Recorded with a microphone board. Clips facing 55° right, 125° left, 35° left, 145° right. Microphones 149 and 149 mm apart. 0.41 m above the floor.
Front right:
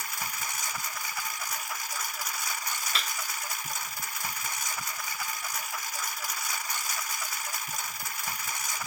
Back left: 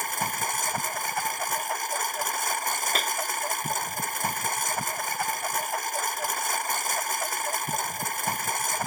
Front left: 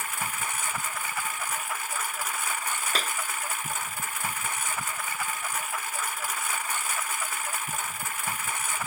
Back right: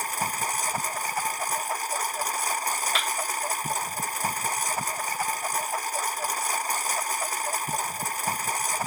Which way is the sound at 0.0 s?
165° left.